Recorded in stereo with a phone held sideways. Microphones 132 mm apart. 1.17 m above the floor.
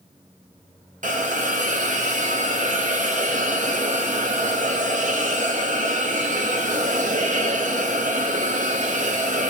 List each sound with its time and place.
1.0 s a hiss: 75° right (ahead or behind), 0.7 m